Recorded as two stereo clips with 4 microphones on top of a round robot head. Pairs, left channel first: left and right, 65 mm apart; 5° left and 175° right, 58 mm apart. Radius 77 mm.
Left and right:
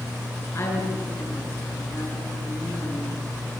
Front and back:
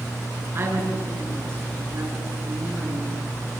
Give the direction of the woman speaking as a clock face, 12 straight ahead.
7 o'clock.